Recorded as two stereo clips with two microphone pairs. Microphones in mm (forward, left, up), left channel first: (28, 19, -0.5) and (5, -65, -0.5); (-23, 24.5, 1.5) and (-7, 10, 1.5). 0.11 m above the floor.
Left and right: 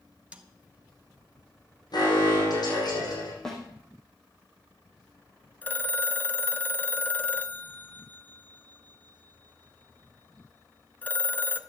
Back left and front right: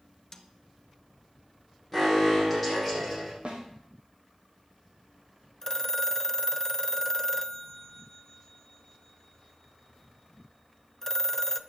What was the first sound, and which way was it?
A snare drum, 170° right.